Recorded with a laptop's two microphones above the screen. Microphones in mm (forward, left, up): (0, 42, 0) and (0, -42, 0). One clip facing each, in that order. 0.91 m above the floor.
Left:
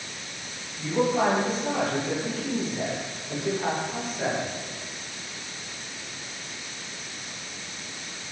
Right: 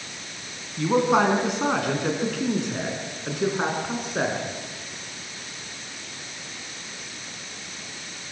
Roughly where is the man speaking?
Right.